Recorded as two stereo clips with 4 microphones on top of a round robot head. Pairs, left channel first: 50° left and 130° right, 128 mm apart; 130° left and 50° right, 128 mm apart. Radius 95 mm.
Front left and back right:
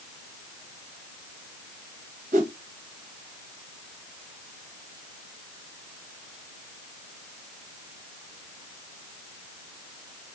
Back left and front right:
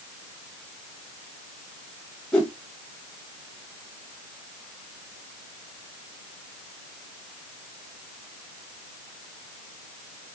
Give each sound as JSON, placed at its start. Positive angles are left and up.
{"t": 2.3, "sound": "a whoosh", "azimuth_deg": -150, "distance_m": 0.8}